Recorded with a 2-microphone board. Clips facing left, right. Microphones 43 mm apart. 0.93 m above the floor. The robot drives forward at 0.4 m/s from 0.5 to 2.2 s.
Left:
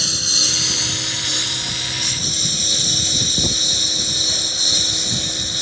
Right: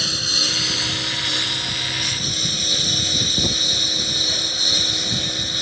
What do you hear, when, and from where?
0.0 s a lawn mower: 10° right (ahead or behind)